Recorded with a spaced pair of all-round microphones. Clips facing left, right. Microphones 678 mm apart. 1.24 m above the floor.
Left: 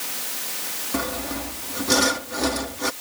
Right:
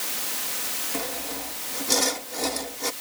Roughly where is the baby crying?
No baby crying in this recording.